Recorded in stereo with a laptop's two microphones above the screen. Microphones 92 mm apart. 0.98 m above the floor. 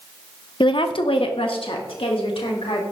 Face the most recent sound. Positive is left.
turn(degrees=85)